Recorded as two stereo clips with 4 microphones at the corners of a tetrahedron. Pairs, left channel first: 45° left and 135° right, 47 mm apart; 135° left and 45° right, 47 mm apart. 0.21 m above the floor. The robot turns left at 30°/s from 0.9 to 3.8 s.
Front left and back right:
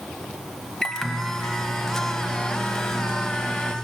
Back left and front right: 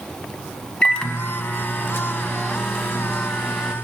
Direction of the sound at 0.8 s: 105° left.